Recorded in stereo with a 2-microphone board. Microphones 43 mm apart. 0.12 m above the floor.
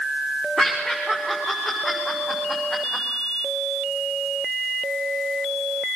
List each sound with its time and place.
0.6 s laughter: 25° left (ahead or behind), 7.5 m; by 3.0 s 10° left (ahead or behind), 8.5 m